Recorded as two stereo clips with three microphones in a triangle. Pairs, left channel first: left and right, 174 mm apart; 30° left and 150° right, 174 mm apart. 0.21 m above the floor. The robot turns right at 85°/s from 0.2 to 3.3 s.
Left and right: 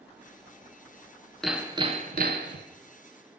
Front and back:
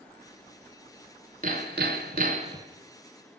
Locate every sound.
1.4 s hammering: 175° left, 0.8 m; by 2.7 s 80° right, 0.8 m